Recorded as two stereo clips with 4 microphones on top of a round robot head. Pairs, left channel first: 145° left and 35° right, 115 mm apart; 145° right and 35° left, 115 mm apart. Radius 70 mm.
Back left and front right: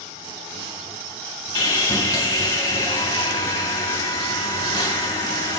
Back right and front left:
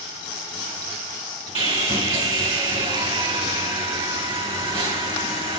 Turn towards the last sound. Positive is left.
turn(degrees=80)